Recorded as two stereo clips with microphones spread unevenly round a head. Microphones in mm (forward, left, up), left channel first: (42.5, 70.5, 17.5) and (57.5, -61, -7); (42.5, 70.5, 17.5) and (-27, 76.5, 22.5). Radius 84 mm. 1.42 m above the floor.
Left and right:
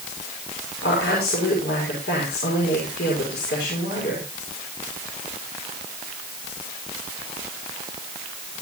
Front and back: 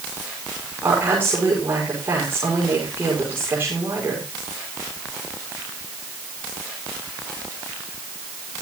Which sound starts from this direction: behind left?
A woman speaking, at 0.8 s.